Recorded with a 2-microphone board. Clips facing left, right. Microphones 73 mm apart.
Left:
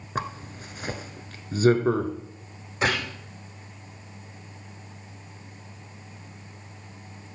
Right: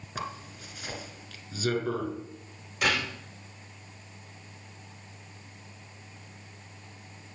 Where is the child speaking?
I don't hear a child speaking.